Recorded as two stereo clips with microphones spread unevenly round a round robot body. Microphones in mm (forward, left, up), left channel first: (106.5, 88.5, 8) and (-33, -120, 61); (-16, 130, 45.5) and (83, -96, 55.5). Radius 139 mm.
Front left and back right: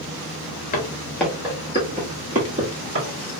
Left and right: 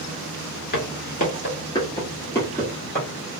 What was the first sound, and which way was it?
Footsteps, 115° left.